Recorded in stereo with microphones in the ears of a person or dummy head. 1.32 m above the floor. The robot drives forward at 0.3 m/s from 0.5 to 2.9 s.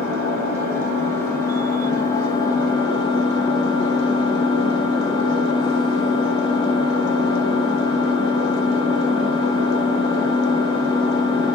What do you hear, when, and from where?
0.0 s an engine running: 15° left (ahead or behind), 1.2 m; by 11.6 s 35° left (ahead or behind), 0.6 m